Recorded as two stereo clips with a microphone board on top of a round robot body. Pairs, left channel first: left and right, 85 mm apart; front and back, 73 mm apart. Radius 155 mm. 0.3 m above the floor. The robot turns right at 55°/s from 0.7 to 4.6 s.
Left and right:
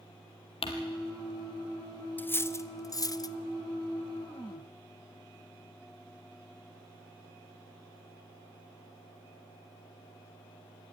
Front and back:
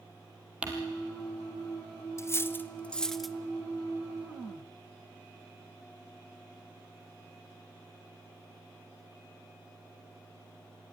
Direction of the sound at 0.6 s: 100° left.